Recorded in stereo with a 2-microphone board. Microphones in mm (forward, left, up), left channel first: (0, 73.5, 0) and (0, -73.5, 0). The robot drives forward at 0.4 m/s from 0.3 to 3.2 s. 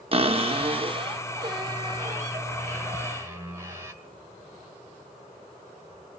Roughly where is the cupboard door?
Right.